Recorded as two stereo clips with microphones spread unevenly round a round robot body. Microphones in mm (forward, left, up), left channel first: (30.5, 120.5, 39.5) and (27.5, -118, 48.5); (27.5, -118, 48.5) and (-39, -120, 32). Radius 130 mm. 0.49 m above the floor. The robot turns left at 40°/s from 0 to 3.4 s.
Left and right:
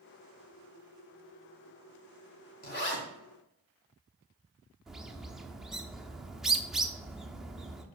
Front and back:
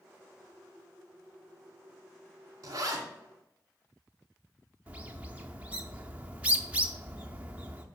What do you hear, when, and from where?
2.6 s a zipper: 145° left, 1.8 m; by 3.0 s 130° left, 1.8 m
4.9 s a bird: straight behind, 0.6 m